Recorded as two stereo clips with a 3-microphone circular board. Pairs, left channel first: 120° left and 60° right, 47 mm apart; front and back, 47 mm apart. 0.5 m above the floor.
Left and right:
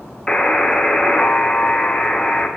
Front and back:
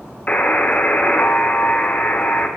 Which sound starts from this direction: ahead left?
A buzzer, at 0.3 s.